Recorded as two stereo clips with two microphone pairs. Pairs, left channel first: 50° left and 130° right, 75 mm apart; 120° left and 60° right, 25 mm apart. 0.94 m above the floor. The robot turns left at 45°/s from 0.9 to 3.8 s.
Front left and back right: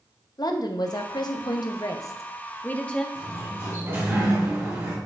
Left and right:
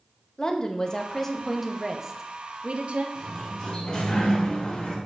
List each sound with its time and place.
0.4 s a woman speaking: 60° left, 0.7 m; by 3.0 s 35° right, 0.7 m
3.1 s a sliding door: 165° right, 3.5 m; by 5.0 s 165° left, 3.5 m